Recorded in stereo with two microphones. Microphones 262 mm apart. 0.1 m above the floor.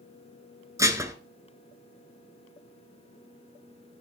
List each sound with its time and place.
0.8 s dishes clattering: 15° right (ahead or behind), 0.8 m